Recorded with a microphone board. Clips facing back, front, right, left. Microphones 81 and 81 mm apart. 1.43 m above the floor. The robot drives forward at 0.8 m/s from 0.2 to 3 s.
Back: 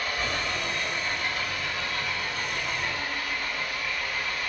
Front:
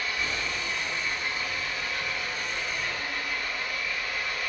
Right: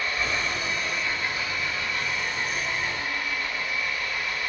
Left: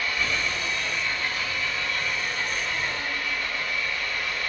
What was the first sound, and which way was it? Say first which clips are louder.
An engine running: back 2 dB, even; 145° right.